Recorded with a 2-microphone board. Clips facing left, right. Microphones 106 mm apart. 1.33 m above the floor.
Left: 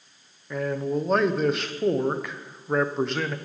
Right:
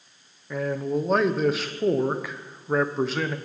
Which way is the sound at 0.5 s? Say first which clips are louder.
Even; centre (ahead or behind).